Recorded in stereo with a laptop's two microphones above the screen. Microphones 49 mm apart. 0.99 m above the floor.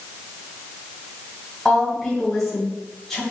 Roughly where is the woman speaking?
Centre.